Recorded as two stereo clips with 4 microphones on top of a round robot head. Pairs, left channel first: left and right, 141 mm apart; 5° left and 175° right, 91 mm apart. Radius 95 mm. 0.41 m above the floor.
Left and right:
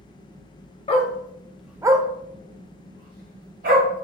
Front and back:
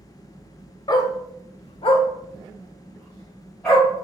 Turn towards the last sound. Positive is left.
turn(degrees=-90)